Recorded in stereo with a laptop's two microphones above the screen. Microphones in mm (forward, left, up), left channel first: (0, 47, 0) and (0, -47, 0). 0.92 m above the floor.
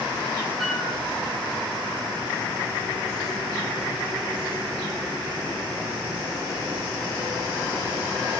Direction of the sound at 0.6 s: Centre (ahead or behind).